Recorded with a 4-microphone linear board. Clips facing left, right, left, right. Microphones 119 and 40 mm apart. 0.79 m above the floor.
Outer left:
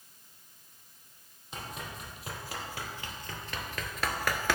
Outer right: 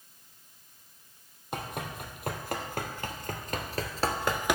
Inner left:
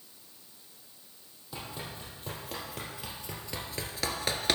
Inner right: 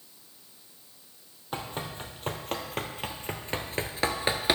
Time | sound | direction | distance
1.5 | running footsteps | 60° right (ahead or behind) | 1.8 m